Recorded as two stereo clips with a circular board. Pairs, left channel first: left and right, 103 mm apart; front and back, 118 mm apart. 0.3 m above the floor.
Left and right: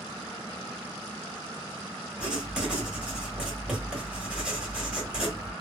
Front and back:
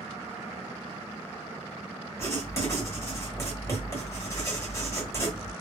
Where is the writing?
25° right, 1.2 m.